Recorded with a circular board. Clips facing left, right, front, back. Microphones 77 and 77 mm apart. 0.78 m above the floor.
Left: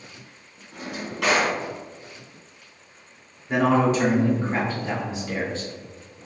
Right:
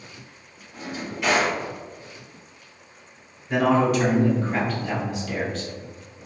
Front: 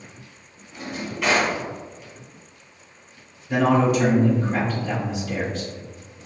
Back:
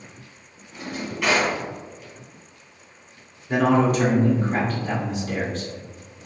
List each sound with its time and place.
0.7 s a drawer: 90° left, 1.9 m
3.5 s a man speaking: 145° left, 1.7 m